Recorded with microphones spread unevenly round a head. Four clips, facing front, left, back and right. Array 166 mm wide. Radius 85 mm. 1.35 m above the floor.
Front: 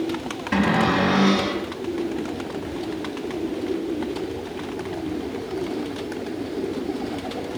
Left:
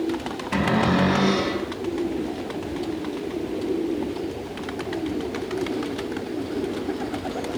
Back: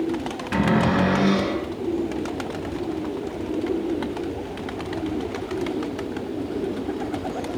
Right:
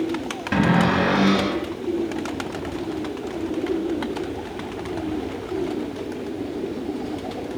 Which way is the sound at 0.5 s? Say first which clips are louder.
Right 2 dB, even; 80° right.